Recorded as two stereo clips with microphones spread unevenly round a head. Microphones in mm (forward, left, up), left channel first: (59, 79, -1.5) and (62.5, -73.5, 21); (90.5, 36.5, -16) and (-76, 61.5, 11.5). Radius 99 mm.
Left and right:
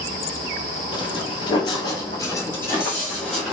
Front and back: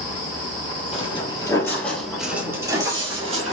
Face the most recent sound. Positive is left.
turn(degrees=-175)